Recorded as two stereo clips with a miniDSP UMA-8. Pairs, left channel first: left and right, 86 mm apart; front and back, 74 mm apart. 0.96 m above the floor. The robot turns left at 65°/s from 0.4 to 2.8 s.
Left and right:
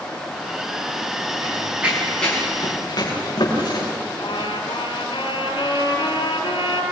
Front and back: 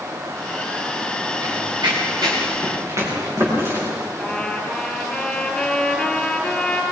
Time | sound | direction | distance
1.4 | running footsteps | 135° right | 7 m
4.2 | a trumpet | 80° left | 4 m